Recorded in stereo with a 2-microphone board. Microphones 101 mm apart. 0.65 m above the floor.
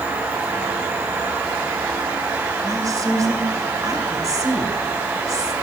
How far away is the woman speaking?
About 2.5 m.